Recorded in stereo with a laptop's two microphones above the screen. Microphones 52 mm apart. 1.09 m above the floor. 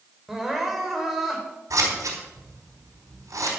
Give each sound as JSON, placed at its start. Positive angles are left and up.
{"t": 0.3, "sound": "crying", "side_deg": -5, "distance_m": 2.5}
{"t": 1.7, "sound": "scissors", "side_deg": -80, "distance_m": 4.5}